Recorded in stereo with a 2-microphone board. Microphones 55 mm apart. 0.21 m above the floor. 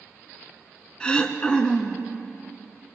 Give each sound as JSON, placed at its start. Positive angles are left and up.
{"t": 1.0, "sound": "throat clearing", "side_deg": 15, "distance_m": 1.0}